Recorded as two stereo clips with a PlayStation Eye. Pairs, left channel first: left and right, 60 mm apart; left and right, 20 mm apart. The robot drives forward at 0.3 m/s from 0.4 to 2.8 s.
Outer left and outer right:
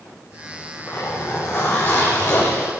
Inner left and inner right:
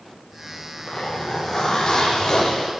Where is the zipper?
45° left (ahead or behind), 7 m.